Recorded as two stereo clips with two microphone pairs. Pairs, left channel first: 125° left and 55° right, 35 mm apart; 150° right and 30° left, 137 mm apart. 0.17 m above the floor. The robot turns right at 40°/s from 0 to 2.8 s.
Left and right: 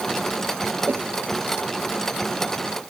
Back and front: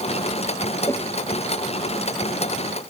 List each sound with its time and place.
0.9 s a whoosh: 85° right; by 1.1 s 75° right